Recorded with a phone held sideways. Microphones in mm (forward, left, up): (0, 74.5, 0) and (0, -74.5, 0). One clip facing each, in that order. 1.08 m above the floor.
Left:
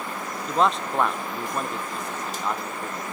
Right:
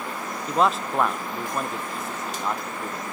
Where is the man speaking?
5° right (ahead or behind), 0.7 m.